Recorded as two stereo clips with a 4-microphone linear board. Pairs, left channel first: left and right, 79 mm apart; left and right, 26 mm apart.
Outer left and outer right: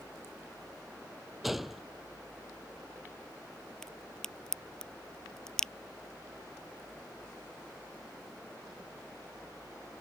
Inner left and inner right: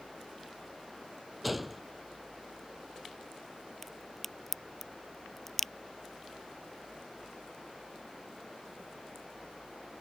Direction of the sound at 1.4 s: Centre (ahead or behind).